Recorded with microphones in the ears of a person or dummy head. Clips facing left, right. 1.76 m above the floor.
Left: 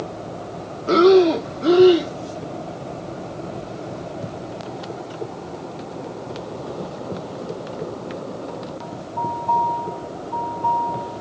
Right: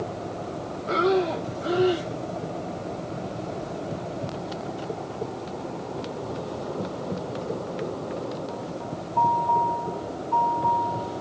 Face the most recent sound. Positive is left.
turn(degrees=60)  # may be behind; listen again after turning